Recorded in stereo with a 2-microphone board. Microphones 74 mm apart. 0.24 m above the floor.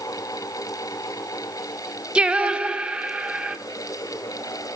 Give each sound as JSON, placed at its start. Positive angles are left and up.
{"t": 2.1, "sound": "singing", "side_deg": -15, "distance_m": 0.6}